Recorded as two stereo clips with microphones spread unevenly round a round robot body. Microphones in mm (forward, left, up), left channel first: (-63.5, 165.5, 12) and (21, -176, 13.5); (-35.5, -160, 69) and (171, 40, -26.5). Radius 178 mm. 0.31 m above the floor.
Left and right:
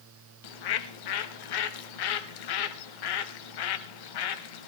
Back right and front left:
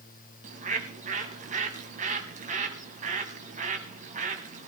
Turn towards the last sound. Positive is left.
turn(degrees=100)